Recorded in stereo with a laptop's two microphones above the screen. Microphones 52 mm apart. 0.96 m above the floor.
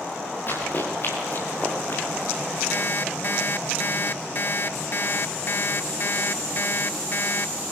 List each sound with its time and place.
0.5 s running footsteps: 45° left (ahead or behind), 7.5 m; by 2.0 s 40° left (ahead or behind), 6 m
2.7 s an alarm clock: 45° left (ahead or behind), 0.8 m